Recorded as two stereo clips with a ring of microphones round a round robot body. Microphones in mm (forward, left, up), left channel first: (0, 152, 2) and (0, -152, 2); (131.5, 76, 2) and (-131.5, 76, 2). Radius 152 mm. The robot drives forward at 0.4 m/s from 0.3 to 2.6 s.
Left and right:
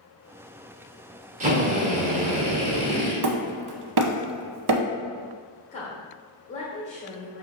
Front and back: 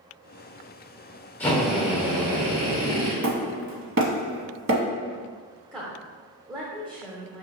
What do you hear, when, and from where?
1.4 s a drill: 75° right, 0.9 m; by 3.1 s 140° right, 1.0 m
3.2 s hammering: 125° right, 0.7 m
5.7 s a woman speaking: 130° left, 1.0 m